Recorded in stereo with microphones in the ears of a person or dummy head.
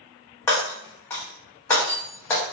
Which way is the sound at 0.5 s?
10° left (ahead or behind).